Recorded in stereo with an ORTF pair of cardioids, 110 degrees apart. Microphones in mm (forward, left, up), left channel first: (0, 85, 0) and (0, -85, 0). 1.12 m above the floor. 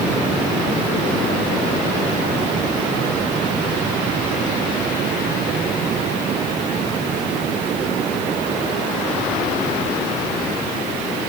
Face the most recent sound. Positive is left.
No sound to turn to.